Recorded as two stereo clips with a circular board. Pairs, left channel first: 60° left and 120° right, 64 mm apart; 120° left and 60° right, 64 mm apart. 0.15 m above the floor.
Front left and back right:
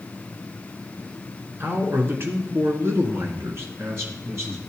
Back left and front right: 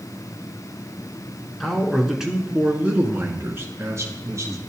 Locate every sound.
1.6 s a man speaking: 160° right, 1.4 m; by 4.6 s 80° right, 1.9 m